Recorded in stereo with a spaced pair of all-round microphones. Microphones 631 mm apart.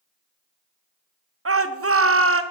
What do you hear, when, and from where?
1.4 s a shout: 25° right (ahead or behind), 0.7 m